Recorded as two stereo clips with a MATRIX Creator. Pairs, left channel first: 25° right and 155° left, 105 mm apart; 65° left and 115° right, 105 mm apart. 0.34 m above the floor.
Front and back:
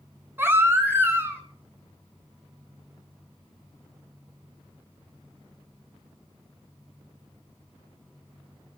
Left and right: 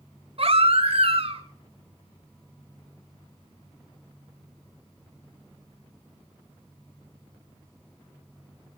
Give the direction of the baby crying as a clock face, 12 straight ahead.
4 o'clock.